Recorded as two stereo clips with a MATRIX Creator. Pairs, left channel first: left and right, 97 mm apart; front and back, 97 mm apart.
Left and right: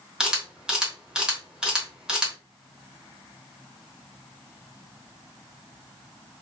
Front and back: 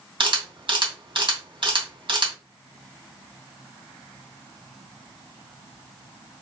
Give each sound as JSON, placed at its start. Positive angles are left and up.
{"t": 0.2, "sound": "a camera shutter", "azimuth_deg": -170, "distance_m": 1.1}